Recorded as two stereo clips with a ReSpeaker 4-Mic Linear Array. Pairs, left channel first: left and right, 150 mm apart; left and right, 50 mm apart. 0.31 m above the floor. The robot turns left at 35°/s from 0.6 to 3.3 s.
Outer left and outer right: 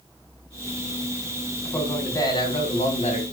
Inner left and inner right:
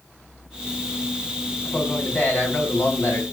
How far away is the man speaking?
About 3 m.